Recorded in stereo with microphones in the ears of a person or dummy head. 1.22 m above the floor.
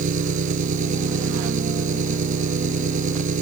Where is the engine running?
45° right (ahead or behind).